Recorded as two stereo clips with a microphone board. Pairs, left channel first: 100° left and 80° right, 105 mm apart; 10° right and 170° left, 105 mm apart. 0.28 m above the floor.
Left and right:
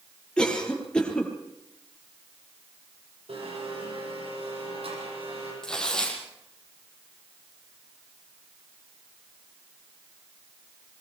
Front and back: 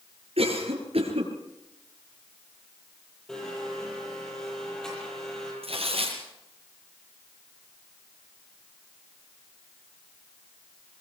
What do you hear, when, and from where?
0.4 s a cough: straight behind, 5 m
3.3 s a blender: 95° right, 9.5 m
5.6 s tearing paper: 175° right, 4.5 m